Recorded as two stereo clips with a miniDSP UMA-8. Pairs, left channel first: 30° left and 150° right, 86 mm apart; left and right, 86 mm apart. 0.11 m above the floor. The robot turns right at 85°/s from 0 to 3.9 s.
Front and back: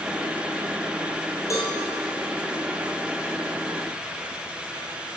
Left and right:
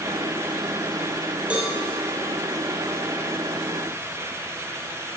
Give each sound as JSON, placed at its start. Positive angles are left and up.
{"t": 1.5, "sound": "a cowbell", "azimuth_deg": -20, "distance_m": 1.5}